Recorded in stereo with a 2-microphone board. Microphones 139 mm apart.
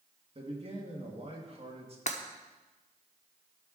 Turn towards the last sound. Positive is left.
turn(degrees=55)  # may be behind; listen again after turning